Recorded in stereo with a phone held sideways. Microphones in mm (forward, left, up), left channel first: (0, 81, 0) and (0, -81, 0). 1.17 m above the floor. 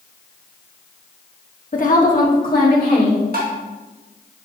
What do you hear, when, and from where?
1.7 s a woman speaking: 55° left (ahead or behind), 1.1 m; by 3.2 s 65° left (ahead or behind), 3 m
3.3 s tapping: 75° right (ahead or behind), 1.7 m